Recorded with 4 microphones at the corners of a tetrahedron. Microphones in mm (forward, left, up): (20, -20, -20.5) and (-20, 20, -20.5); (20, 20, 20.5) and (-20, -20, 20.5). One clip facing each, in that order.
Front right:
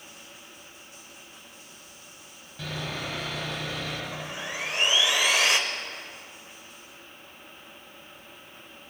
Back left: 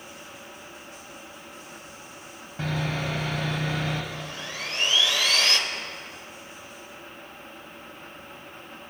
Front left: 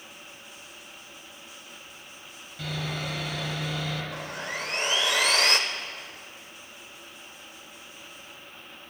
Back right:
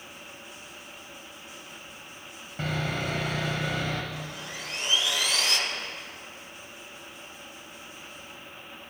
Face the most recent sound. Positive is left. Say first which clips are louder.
# front right 1 dB, front left 4 dB
turn(degrees=20)